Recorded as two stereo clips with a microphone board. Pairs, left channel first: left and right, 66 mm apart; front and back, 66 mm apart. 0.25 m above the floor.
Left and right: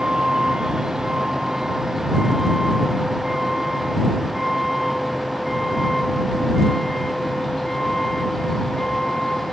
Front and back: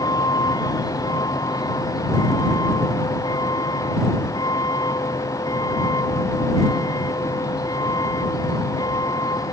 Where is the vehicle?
10° right; by 9.5 s 5° left.